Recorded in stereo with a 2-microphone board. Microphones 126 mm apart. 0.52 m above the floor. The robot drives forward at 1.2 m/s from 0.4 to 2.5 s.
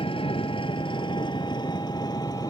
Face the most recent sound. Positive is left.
turn(degrees=30)  # may be behind; listen again after turning